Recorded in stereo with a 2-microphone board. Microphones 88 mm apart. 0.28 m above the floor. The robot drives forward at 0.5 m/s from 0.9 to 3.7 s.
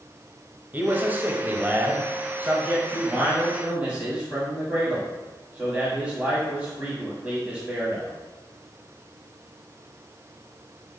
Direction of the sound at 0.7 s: 20° right (ahead or behind).